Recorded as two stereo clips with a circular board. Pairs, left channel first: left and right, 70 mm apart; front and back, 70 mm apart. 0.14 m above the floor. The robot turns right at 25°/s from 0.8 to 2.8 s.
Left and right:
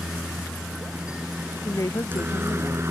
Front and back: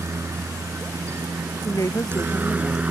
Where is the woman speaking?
40° left; by 2.8 s 65° left.